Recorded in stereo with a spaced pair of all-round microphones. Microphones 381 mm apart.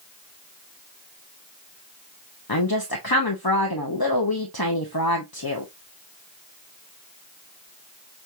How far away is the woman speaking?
About 0.8 m.